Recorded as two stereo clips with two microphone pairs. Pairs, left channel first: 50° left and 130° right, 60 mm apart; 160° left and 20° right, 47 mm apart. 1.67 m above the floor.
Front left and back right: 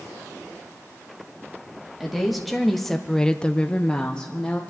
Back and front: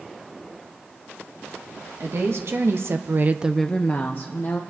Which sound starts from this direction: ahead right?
A woman speaking, at 2.0 s.